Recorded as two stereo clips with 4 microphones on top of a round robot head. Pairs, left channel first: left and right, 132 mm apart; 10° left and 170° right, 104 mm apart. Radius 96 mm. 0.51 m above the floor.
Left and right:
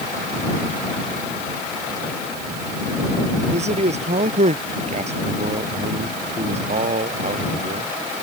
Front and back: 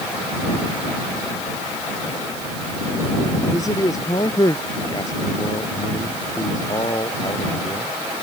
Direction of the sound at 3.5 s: 55° right.